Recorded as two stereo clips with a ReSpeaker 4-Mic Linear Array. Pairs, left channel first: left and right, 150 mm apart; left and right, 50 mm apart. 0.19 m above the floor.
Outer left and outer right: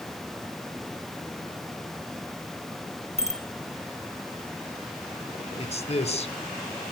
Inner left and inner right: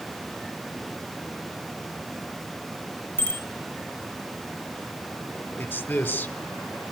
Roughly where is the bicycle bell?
Left.